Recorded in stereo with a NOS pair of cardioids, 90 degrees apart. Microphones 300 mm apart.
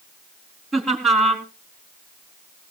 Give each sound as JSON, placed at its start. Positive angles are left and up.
{"t": 0.7, "sound": "laughter", "azimuth_deg": 0, "distance_m": 4.0}